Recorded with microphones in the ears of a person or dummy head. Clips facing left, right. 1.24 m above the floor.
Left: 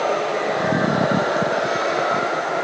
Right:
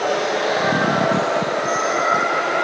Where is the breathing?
No breathing in this recording.